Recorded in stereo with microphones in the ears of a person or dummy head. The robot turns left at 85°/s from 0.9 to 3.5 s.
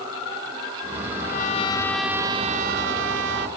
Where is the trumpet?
70° left; by 3.5 s 125° right.